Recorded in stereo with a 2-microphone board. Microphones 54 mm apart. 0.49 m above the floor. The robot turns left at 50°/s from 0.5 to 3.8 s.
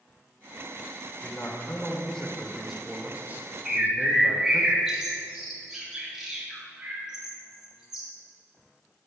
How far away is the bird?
About 1.9 m.